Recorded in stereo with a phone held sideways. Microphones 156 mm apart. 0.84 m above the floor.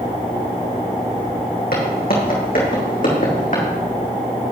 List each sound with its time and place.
1.7 s footsteps: 75° left (ahead or behind), 3.5 m; by 3.6 s 55° left (ahead or behind), 3.5 m